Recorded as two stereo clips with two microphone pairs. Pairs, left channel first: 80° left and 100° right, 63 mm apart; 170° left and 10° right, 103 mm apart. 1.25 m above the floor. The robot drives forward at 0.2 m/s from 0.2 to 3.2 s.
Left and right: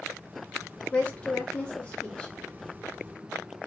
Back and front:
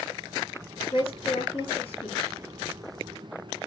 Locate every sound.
0.9 s a woman speaking: 150° left, 1.2 m; by 2.4 s 155° left, 1.5 m